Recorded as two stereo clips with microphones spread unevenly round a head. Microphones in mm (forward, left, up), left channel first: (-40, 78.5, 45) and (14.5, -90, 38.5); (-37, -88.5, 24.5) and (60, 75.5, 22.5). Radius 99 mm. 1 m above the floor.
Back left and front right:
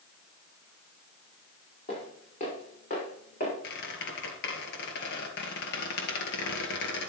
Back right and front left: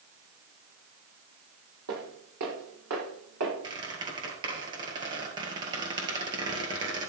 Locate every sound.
1.9 s footsteps: 55° left, 5 m; by 3.5 s 60° left, 7 m
3.6 s a squeak: 125° left, 1.7 m